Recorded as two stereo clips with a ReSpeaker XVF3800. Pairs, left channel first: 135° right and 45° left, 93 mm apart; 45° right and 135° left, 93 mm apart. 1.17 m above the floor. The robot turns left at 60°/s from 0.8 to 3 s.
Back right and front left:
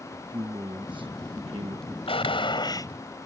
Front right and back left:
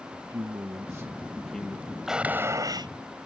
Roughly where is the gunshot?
Behind right.